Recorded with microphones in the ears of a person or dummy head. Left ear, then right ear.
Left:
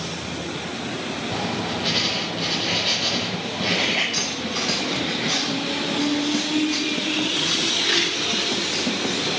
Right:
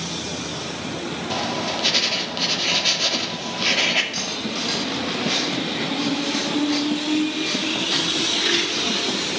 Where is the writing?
50° right (ahead or behind), 2 m.